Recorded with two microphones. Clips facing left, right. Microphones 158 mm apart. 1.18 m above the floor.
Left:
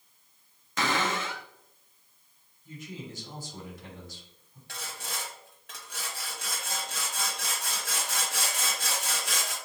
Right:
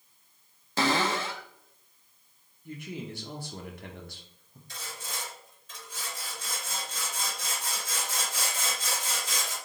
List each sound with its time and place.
0.8 s a cupboard door: 35° right (ahead or behind), 0.6 m
2.6 s a man speaking: 65° right (ahead or behind), 1.0 m
4.7 s sawing: 80° left, 1.1 m